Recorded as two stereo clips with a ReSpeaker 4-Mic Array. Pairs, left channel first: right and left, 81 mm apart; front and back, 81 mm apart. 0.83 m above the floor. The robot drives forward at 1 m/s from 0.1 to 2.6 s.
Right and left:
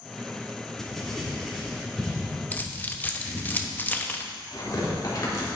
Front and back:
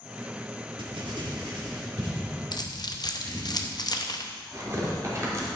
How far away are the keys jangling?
About 0.7 m.